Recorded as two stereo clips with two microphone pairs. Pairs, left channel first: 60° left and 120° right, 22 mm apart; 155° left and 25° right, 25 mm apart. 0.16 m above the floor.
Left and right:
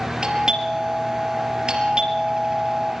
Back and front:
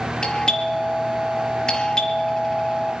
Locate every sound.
0.2 s a doorbell: 160° right, 4.5 m